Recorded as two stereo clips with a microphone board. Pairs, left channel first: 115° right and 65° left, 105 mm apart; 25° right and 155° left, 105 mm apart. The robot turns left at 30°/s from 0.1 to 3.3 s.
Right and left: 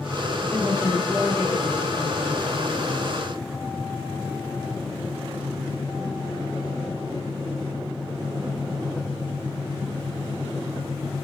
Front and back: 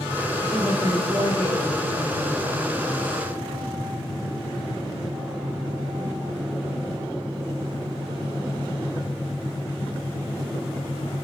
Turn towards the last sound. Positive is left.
turn(degrees=110)